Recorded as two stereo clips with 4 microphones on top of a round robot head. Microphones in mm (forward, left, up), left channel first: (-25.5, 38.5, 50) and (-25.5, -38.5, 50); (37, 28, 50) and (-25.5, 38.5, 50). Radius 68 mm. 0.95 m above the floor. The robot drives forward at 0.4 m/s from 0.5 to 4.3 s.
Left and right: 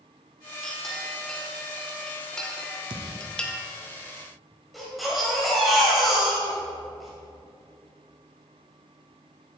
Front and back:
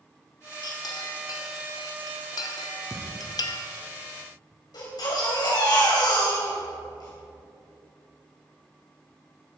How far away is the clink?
About 2 m.